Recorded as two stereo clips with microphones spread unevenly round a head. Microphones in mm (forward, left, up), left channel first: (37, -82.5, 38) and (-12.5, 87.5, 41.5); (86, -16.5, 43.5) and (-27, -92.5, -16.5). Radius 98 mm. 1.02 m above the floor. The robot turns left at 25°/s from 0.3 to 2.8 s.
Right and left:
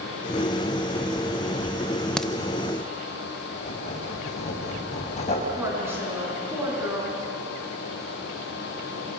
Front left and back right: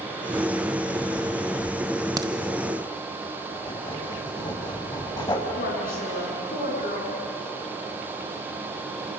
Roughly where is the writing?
Ahead.